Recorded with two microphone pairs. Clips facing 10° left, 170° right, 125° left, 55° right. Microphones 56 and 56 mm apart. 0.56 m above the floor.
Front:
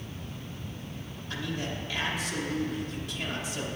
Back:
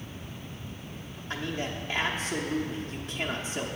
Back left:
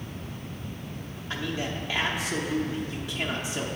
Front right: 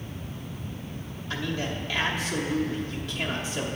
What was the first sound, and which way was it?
A man speaking, straight behind.